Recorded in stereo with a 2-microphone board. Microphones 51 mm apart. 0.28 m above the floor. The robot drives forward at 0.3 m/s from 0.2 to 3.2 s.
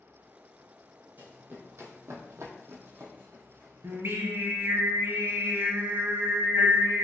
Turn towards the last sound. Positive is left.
turn(degrees=-60)  # may be behind; listen again after turning